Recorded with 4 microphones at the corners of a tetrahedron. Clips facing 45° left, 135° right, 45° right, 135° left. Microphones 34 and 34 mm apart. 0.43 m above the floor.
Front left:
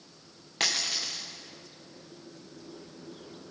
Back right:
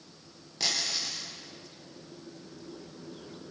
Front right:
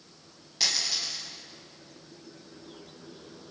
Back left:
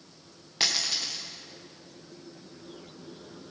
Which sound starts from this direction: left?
A dropped coin, at 0.6 s.